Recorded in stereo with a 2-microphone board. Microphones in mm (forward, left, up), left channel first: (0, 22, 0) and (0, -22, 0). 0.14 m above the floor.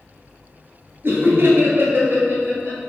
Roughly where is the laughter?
Right.